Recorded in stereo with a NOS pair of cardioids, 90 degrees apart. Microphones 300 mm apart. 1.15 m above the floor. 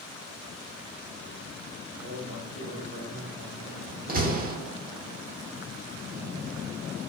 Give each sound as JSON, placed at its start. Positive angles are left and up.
{"t": 2.0, "sound": "a man speaking", "azimuth_deg": -45, "distance_m": 4.0}
{"t": 4.1, "sound": "a door slam", "azimuth_deg": -30, "distance_m": 1.9}